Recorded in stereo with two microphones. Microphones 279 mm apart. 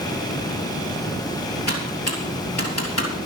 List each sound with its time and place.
1.7 s typing on a keyboard: 65° left (ahead or behind), 3 m